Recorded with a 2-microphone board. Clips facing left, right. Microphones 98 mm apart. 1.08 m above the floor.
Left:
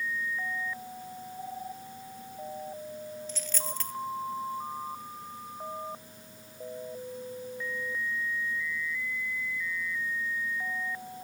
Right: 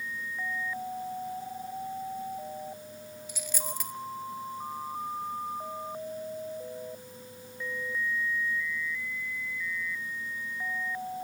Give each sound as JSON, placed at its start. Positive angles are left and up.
{"t": 3.3, "sound": "a dropped coin", "side_deg": -10, "distance_m": 1.1}